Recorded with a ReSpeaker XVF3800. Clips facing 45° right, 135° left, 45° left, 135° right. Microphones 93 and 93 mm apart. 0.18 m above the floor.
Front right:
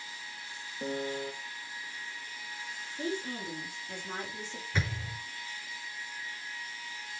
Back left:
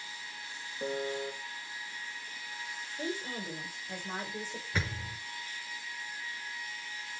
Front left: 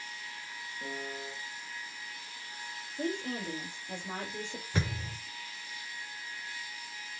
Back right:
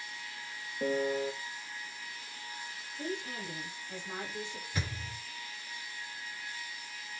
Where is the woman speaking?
50° left, 4.5 m.